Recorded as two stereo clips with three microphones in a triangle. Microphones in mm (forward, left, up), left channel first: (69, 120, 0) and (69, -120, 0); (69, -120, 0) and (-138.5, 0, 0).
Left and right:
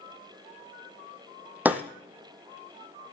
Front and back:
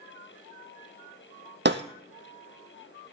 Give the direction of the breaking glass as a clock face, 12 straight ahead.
6 o'clock.